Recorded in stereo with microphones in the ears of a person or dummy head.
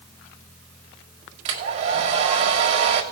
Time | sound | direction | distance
1.4 | a hair dryer | 35° right (ahead or behind) | 2 m